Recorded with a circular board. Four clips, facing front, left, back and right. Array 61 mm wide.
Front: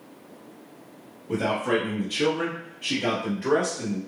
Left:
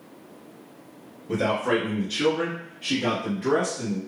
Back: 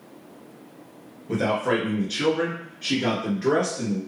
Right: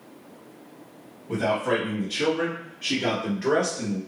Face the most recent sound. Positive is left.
turn(degrees=-120)